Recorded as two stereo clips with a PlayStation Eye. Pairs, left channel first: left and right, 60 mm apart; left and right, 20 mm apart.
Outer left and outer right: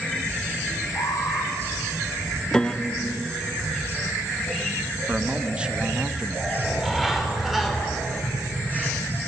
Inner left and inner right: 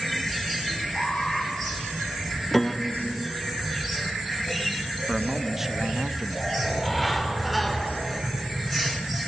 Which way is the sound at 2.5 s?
10° left (ahead or behind).